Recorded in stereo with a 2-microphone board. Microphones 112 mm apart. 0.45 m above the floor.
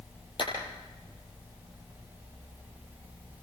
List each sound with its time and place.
0.4 s a clap: 50° left (ahead or behind), 10 m